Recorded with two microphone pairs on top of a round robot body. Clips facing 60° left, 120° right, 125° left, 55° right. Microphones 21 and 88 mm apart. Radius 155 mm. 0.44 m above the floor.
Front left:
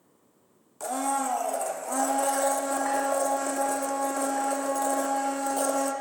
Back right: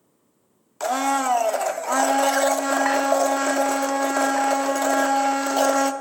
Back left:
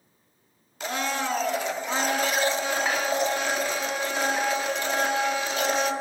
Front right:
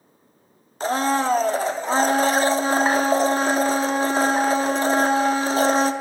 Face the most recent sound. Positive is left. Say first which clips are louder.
# back right 6 dB, front right 8 dB
turn(degrees=-110)